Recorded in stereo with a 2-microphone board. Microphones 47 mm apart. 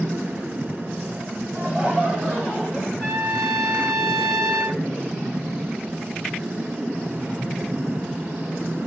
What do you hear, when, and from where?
1.5 s laughter: 15° right (ahead or behind), 1.8 m; by 2.9 s 5° left (ahead or behind), 1.6 m
3.0 s a trumpet: 20° left (ahead or behind), 2 m